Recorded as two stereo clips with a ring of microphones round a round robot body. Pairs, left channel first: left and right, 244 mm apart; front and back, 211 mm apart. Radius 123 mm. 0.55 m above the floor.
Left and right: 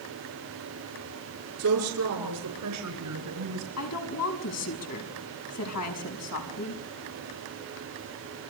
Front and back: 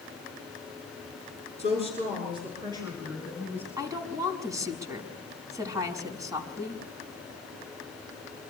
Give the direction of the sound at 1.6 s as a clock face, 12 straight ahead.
4 o'clock.